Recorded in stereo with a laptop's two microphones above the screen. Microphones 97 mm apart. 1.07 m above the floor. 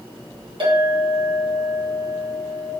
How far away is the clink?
About 1.0 m.